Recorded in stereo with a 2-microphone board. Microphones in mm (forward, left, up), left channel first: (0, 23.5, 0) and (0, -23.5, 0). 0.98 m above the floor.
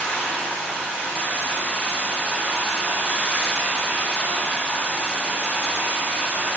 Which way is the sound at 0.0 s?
45° left (ahead or behind).